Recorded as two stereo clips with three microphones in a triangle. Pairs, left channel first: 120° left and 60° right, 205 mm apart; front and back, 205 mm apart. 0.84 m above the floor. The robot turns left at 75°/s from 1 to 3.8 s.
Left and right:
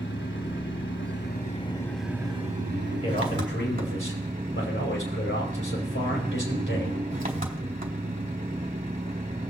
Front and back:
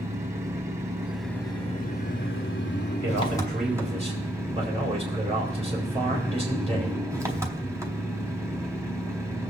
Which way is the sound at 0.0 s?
105° left.